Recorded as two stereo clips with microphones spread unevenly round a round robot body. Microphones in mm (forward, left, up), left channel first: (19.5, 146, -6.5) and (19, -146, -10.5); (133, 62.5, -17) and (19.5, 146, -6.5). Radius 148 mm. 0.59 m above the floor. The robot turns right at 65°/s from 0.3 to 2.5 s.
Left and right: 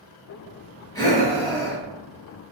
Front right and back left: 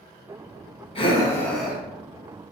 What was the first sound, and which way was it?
Breathing, 10° left.